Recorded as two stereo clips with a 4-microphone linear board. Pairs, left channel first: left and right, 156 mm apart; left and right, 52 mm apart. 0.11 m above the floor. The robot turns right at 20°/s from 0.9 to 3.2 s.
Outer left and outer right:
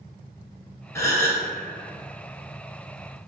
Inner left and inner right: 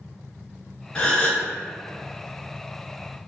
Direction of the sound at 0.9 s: 15° left (ahead or behind).